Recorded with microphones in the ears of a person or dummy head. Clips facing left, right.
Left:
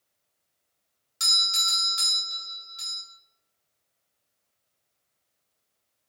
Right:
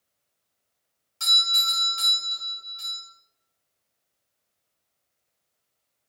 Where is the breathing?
No breathing in this recording.